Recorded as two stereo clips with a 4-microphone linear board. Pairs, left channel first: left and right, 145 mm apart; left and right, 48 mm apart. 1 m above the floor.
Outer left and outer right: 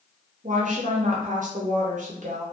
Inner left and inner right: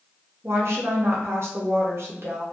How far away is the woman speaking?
About 0.5 m.